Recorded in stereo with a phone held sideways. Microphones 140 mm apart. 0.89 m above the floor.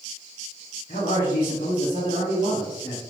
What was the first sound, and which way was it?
A man speaking, 65° left (ahead or behind).